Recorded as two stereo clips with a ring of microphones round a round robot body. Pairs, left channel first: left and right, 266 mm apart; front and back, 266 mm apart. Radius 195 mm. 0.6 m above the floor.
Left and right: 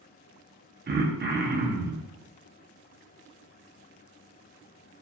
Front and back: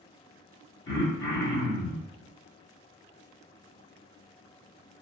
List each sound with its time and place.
0.9 s throat clearing: 40° right, 0.6 m